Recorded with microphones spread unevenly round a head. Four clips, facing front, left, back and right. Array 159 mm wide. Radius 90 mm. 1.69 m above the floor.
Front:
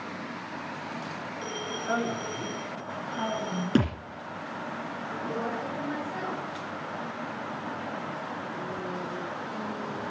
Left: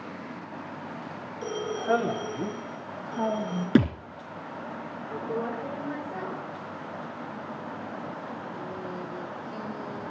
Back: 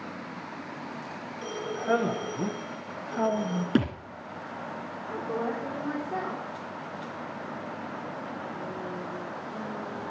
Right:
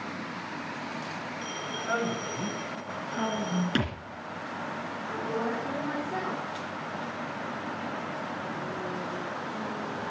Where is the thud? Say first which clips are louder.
Left 8 dB, front 1 dB; 110° left, 2 m.